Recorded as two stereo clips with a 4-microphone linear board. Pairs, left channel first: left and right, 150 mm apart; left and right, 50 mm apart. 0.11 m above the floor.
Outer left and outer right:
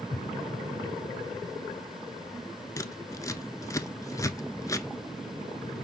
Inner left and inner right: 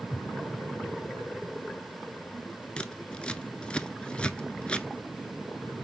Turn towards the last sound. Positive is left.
turn(degrees=20)  # may be behind; listen again after turning